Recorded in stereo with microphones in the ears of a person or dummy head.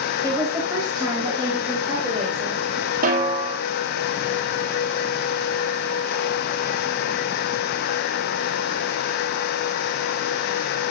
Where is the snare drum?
45° right (ahead or behind), 2.5 m.